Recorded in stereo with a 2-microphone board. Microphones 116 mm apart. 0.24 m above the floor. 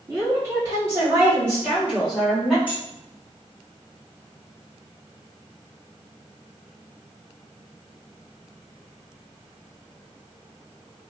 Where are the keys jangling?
15° right (ahead or behind), 1.1 m.